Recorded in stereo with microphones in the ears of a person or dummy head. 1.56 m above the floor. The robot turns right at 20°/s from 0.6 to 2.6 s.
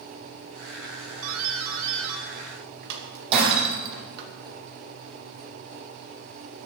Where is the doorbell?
85° right, 2.5 m; by 4.3 s 65° right (ahead or behind), 2.5 m.